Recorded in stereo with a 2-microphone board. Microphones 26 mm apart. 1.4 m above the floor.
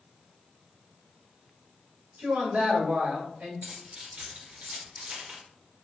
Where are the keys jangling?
55° right (ahead or behind), 1.9 m.